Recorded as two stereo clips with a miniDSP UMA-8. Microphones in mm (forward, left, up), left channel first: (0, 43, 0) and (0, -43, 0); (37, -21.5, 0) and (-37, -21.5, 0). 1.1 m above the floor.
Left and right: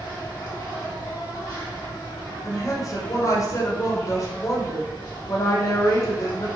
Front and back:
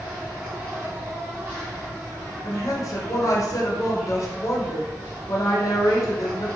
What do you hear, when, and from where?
0.0 s an insect: 125° left, 1.4 m
2.4 s a woman speaking: 40° left, 0.6 m